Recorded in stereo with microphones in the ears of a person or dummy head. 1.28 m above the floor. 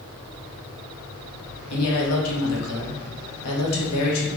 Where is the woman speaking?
85° left, 1.2 m.